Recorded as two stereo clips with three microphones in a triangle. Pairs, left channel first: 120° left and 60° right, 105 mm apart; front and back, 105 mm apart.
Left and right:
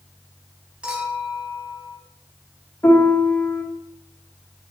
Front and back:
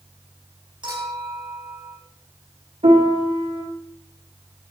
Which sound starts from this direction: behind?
A piano, at 2.8 s.